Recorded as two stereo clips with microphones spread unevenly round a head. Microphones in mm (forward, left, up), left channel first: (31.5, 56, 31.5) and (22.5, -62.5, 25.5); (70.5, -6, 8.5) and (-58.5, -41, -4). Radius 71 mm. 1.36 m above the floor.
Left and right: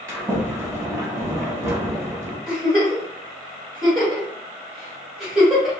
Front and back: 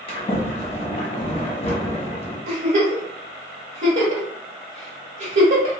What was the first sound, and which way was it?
A sliding door, 30° right.